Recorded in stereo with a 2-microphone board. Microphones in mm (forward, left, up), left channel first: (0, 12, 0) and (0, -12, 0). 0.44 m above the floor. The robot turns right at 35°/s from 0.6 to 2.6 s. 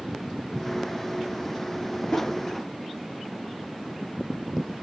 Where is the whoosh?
55° left (ahead or behind), 1.6 m; by 2.3 s 65° left (ahead or behind), 1.6 m.